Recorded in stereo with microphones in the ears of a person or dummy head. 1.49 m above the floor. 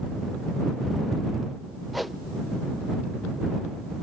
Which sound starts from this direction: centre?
A whoosh, at 1.9 s.